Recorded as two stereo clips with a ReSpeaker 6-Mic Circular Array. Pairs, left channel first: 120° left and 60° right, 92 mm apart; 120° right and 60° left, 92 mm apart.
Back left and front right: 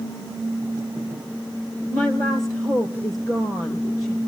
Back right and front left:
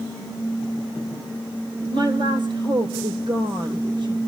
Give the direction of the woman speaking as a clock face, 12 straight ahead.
10 o'clock.